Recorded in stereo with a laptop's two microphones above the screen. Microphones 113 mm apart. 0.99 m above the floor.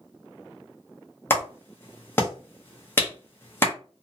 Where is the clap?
25° left (ahead or behind), 0.7 m.